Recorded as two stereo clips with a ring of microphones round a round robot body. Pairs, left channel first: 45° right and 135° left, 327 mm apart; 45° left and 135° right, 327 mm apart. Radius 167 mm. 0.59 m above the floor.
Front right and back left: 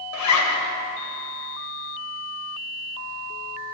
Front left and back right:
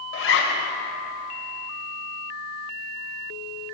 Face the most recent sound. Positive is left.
turn(degrees=-10)